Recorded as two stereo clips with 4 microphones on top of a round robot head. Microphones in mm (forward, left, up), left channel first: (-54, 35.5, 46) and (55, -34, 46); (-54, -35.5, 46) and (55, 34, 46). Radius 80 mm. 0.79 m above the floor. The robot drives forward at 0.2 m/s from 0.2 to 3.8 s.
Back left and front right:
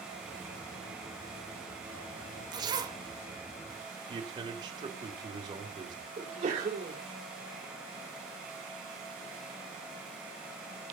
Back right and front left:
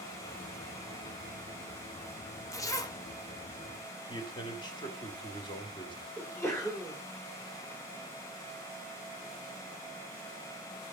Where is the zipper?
85° right, 1.7 m; by 3.0 s 90° right, 1.7 m.